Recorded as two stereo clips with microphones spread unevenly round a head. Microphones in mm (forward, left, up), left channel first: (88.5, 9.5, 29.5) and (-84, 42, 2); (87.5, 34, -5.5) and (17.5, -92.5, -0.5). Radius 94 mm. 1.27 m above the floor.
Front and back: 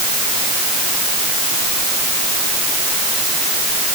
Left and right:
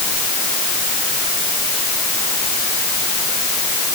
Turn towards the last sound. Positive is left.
No sound to turn to.